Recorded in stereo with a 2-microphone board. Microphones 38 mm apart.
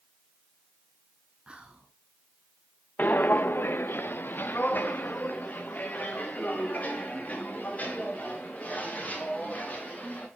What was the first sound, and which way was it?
Whispering, 25° right (ahead or behind).